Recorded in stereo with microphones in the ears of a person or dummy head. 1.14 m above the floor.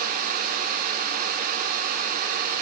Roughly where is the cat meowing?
No cat meowing in this recording.